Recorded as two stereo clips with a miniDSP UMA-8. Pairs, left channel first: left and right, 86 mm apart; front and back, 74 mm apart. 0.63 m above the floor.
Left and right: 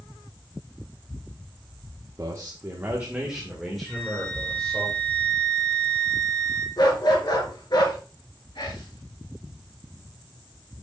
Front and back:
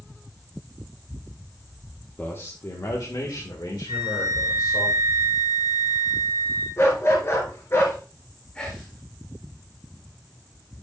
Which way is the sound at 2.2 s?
55° right.